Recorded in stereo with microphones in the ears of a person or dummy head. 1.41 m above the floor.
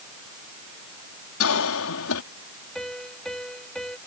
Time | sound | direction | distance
1.4 | a cough | 70° left (ahead or behind) | ?
2.8 | a piano | 5° left (ahead or behind) | ?